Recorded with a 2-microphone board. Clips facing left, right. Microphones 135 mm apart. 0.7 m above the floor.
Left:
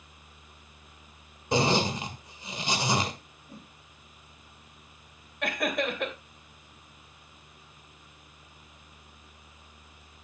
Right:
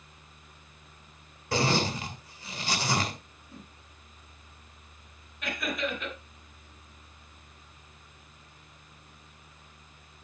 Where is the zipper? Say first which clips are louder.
Left 2 dB; 20° left (ahead or behind), 1.6 m.